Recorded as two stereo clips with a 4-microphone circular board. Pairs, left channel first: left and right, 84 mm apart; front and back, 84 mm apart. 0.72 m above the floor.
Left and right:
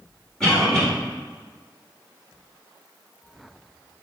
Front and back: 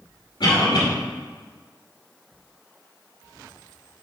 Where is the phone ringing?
No phone ringing in this recording.